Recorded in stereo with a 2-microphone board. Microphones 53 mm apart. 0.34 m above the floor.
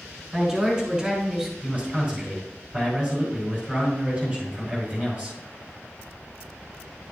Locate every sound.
0.3 s a woman speaking: 20° right (ahead or behind), 4 m; by 1.5 s 15° right (ahead or behind), 2.5 m
1.6 s a man speaking: 30° right (ahead or behind), 3 m